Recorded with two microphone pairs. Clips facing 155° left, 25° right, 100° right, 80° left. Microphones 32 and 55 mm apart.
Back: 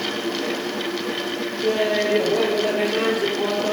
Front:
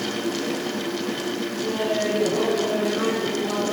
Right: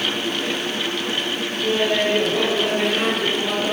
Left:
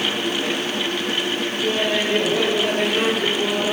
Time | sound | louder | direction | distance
1.6 | laughter | back 5 dB, right 3 dB | 165° left | 5.5 m